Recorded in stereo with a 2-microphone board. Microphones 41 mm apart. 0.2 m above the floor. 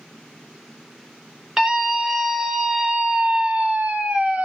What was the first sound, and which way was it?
A scream, 10° right (ahead or behind).